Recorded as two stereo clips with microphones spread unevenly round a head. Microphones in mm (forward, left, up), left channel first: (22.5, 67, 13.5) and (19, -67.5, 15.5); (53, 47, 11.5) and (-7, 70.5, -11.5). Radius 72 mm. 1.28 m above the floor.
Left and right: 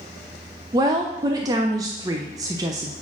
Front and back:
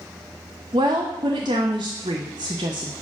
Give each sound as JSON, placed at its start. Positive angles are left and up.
{"t": 0.7, "sound": "a woman speaking", "azimuth_deg": -160, "distance_m": 0.5}